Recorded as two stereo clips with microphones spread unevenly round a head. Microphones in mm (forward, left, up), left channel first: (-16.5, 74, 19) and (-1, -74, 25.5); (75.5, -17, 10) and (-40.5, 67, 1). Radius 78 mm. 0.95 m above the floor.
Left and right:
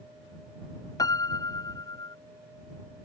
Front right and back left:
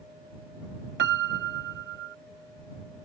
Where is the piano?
165° left.